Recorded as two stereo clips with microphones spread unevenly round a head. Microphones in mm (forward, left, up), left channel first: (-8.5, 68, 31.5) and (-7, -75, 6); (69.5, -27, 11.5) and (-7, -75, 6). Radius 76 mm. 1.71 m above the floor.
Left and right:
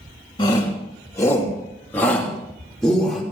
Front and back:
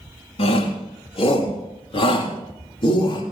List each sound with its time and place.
0.4 s a shout: 25° left, 3.5 m; by 3.2 s straight ahead, 3.5 m